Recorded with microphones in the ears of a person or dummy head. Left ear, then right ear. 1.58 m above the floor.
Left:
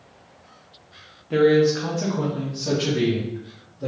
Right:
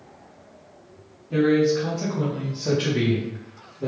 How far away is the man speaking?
About 0.9 m.